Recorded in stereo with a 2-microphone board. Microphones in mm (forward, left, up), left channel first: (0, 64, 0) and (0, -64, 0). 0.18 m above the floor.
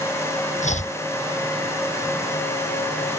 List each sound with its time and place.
0.6 s chopping: 70° left (ahead or behind)